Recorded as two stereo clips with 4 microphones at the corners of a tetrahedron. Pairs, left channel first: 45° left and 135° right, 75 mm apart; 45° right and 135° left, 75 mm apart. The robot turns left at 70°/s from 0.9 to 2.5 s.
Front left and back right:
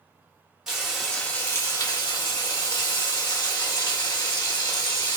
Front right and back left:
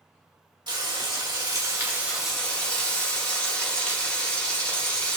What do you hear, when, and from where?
0.7 s frying: 140° left, 1.3 m; by 5.2 s 30° left, 1.3 m